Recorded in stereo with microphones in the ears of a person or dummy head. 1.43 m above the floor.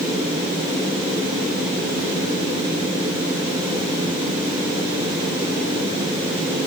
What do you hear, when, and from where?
Only background noise.